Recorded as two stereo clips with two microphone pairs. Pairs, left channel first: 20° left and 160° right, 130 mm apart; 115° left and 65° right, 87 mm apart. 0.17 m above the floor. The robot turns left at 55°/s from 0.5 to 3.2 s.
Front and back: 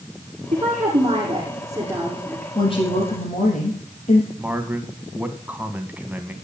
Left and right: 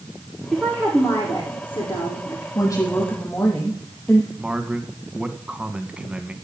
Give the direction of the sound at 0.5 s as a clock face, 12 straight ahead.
5 o'clock.